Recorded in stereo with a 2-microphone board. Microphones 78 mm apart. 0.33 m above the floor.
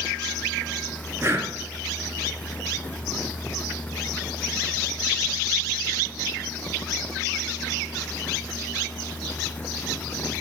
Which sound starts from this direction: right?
Breathing, at 1.2 s.